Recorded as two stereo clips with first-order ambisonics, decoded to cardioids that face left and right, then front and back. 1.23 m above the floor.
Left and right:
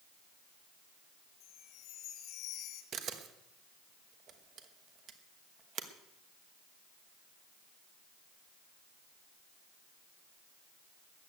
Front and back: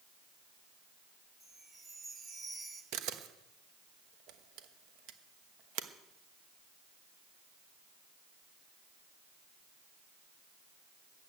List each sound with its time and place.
1.4 s a chime: 110° left, 1.9 m
2.9 s a camera shutter: 145° right, 1.2 m